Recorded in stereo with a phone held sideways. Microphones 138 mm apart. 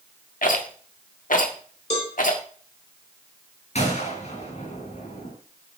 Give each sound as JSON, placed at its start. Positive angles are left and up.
{"t": 0.4, "sound": "a rattle", "side_deg": 80, "distance_m": 1.4}
{"t": 1.9, "sound": "a cowbell", "side_deg": 55, "distance_m": 3.0}
{"t": 3.8, "sound": "a gunshot", "side_deg": 55, "distance_m": 3.5}